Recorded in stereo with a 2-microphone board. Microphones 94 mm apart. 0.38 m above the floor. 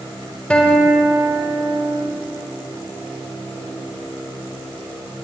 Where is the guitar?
10° left (ahead or behind), 1.6 m.